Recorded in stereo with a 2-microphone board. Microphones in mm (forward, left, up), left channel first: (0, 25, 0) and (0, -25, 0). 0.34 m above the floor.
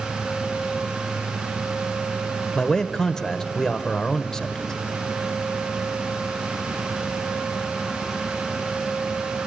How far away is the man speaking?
About 1.0 m.